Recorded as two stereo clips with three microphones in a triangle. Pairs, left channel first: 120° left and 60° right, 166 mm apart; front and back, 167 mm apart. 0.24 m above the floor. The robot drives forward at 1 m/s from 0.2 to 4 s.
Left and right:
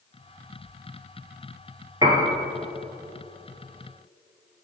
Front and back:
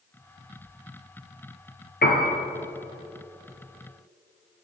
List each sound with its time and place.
2.0 s a piano: 5° left, 1.6 m; by 2.3 s 10° left, 1.4 m